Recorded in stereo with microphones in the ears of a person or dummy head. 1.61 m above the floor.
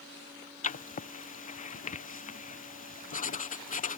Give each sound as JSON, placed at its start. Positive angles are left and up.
{"t": 0.6, "sound": "writing", "side_deg": 40}